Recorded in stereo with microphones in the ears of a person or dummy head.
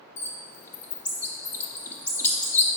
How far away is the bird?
About 0.6 m.